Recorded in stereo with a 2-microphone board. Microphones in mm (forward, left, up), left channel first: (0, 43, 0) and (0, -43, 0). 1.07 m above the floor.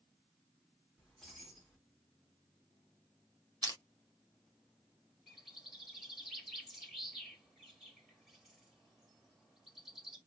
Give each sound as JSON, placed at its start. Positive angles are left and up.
{"t": 1.0, "sound": "keys jangling", "side_deg": 0, "distance_m": 1.8}
{"t": 3.6, "sound": "crushing", "side_deg": -45, "distance_m": 1.1}
{"t": 5.3, "sound": "a bird", "side_deg": -5, "distance_m": 2.0}